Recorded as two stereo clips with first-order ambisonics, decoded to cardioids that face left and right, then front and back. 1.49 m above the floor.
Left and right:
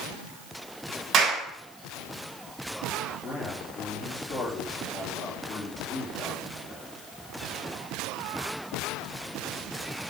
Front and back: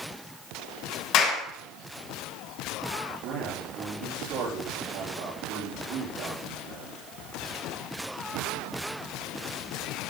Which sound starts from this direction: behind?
A man speaking, at 3.2 s.